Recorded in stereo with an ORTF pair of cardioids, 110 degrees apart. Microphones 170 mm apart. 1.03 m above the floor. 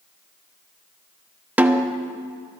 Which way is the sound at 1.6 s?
10° right.